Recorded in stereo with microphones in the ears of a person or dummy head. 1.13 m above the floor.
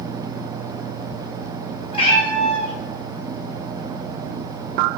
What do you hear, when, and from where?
1.9 s a cat meowing: 35° left (ahead or behind), 1.8 m